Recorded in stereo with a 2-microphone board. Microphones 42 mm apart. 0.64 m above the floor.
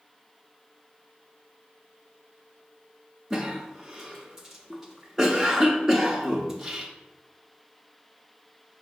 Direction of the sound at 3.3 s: 10° right (ahead or behind).